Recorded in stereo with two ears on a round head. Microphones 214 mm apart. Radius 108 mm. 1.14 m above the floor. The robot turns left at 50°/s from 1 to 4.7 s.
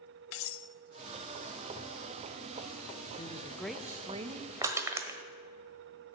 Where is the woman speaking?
25° left, 0.8 m; by 4.5 s 40° right, 0.8 m.